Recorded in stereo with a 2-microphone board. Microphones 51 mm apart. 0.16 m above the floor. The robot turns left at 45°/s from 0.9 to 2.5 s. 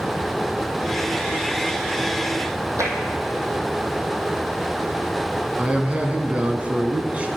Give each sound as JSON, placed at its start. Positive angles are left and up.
{"t": 2.8, "sound": "tapping", "side_deg": -80, "distance_m": 1.5}
{"t": 5.6, "sound": "a man speaking", "side_deg": -30, "distance_m": 1.1}